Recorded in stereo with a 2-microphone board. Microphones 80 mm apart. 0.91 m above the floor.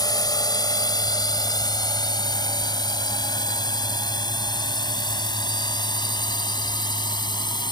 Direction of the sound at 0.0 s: 55° left (ahead or behind).